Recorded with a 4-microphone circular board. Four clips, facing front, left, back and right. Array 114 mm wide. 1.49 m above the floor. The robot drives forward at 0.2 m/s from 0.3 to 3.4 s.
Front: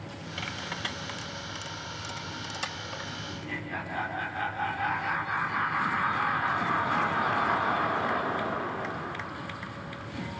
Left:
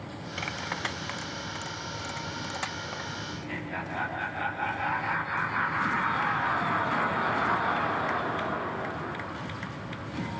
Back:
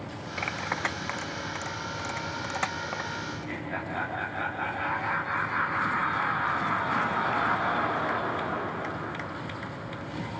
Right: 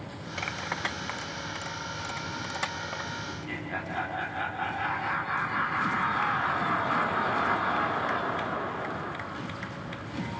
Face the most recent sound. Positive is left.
turn(degrees=180)